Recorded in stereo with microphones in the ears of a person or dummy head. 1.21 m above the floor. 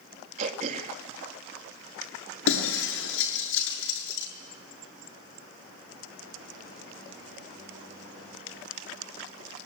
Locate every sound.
0.4 s throat clearing: 45° right (ahead or behind), 2.5 m
2.5 s breaking glass: 80° left, 7.5 m